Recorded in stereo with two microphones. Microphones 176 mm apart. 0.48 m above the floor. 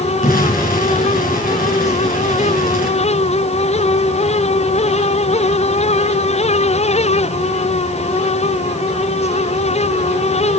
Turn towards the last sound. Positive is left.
turn(degrees=55)  # may be behind; listen again after turning